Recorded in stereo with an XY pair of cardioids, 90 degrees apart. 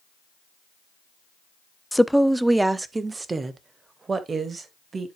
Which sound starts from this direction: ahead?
A woman speaking, at 1.9 s.